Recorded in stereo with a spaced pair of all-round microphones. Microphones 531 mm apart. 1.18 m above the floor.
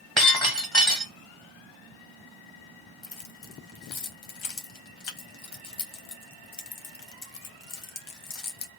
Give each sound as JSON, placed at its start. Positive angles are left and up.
{"t": 0.2, "sound": "breaking glass", "side_deg": 0, "distance_m": 1.3}
{"t": 3.0, "sound": "keys jangling", "side_deg": 60, "distance_m": 0.6}